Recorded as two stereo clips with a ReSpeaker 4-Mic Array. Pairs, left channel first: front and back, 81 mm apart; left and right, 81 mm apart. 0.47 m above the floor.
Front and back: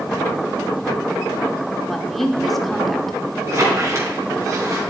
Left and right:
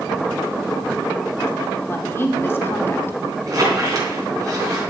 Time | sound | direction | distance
1.9 | a woman speaking | 85° left | 1.2 m
3.5 | a squeak | 130° right | 3.5 m